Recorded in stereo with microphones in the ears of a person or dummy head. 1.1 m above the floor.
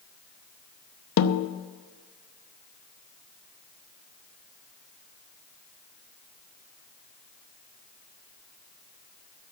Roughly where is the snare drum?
Left.